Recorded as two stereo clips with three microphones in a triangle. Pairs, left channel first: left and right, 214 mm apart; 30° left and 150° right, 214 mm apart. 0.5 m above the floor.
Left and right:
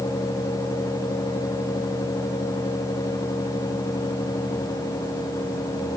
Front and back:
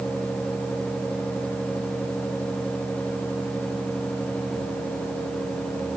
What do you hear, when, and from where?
Only background noise.